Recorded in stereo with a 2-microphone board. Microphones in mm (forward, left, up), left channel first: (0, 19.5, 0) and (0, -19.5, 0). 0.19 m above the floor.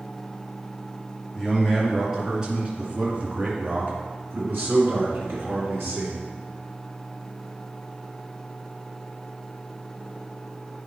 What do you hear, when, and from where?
1.4 s a man speaking: 5° right (ahead or behind), 3 m; by 6.2 s 60° right (ahead or behind), 2.5 m